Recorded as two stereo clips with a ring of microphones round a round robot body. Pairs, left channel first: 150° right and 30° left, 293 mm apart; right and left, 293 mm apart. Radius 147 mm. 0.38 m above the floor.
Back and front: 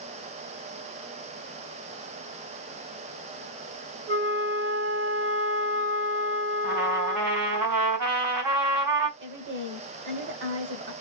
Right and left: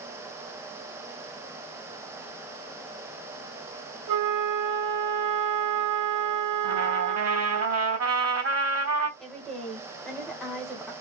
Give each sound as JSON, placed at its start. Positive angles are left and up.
{"t": 4.1, "sound": "a flute", "azimuth_deg": 80, "distance_m": 1.5}
{"t": 6.6, "sound": "a trumpet", "azimuth_deg": 50, "distance_m": 3.0}
{"t": 9.2, "sound": "a woman speaking", "azimuth_deg": 0, "distance_m": 1.6}